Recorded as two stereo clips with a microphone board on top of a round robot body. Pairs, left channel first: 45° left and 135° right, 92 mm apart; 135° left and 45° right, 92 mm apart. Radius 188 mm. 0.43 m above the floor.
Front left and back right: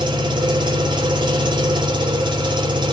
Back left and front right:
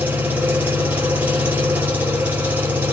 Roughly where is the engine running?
Behind right.